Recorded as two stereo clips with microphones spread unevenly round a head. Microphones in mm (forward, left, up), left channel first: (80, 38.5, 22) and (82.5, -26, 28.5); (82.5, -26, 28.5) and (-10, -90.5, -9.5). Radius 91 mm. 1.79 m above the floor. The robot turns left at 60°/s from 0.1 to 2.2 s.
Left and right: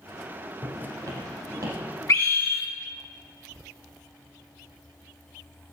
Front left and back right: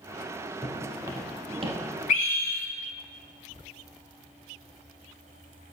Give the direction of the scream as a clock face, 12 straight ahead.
10 o'clock.